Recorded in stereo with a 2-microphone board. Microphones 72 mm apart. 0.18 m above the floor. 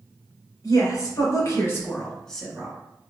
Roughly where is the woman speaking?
Left.